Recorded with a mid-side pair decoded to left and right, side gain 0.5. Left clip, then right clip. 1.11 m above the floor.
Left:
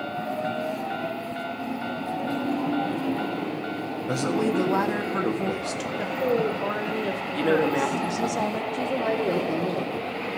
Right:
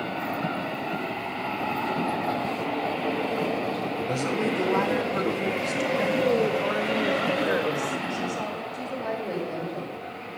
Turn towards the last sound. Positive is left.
turn(degrees=65)